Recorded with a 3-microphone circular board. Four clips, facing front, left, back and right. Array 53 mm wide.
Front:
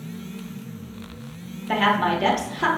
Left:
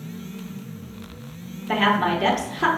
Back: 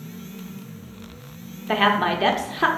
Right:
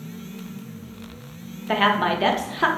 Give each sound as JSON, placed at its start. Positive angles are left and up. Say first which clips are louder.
{"t": 1.7, "sound": "a woman speaking", "louder": "even, back 1 dB", "azimuth_deg": -140, "distance_m": 0.8}